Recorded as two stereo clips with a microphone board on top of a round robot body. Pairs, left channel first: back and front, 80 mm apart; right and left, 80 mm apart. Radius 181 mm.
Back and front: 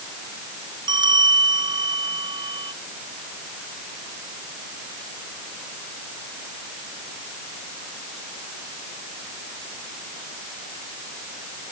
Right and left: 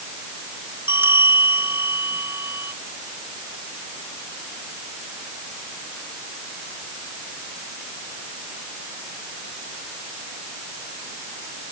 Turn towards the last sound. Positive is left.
turn(degrees=30)